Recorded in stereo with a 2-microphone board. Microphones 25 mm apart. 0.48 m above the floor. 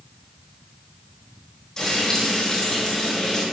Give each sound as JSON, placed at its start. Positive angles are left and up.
{"t": 1.8, "sound": "frying", "side_deg": 20, "distance_m": 2.5}